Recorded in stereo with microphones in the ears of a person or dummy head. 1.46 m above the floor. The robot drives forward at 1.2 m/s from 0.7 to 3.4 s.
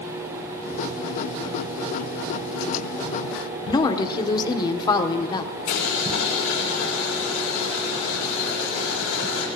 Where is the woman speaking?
25° left (ahead or behind), 1.0 m.